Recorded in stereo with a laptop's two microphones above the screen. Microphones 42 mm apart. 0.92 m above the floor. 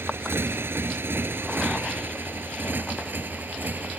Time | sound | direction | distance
0.0 | a motorcycle | 65° right (ahead or behind) | ?